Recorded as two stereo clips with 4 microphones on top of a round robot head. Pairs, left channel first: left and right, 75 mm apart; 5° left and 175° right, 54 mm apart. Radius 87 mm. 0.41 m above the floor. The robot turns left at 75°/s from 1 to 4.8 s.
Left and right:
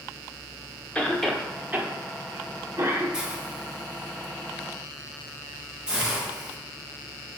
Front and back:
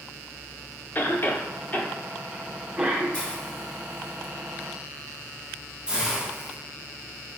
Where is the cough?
25° left, 0.9 m; by 3.0 s 125° right, 0.9 m.